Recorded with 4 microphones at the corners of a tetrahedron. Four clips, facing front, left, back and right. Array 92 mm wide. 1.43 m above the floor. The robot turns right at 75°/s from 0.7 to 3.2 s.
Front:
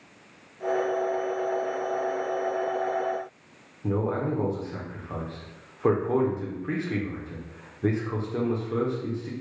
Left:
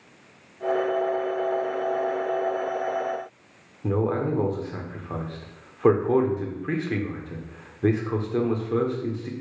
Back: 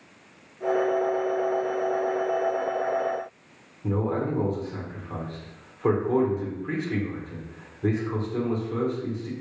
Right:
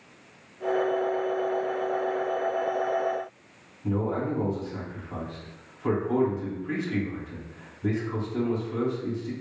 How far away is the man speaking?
About 0.9 m.